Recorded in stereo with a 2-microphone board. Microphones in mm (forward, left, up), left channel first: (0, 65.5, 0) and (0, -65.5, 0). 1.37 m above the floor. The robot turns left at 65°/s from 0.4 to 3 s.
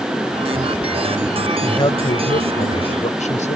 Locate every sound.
1.6 s a man speaking: 155° left; by 3.6 s 65° left